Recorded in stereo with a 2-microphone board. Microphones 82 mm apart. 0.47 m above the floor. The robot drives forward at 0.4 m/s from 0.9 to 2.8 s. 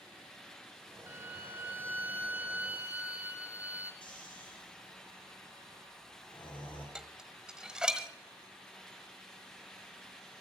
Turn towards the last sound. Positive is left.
turn(degrees=-10)  # may be behind; listen again after turning